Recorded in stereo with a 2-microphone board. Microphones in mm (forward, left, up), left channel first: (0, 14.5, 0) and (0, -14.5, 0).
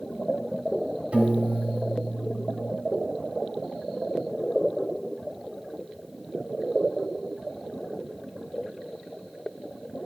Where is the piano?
45° right (ahead or behind), 1.8 m.